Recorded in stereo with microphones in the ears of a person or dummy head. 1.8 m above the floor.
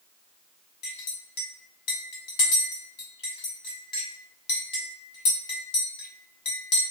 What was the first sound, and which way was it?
A clink, 45° left (ahead or behind).